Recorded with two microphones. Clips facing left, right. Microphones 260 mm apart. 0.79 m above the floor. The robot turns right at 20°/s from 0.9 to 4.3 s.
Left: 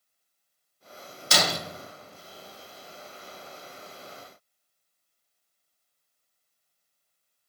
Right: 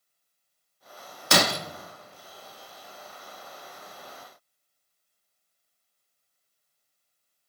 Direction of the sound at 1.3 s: 65° right (ahead or behind).